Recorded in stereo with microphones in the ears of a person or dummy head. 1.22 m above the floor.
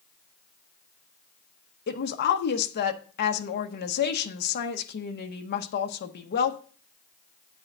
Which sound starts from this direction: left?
A woman speaking, at 1.9 s.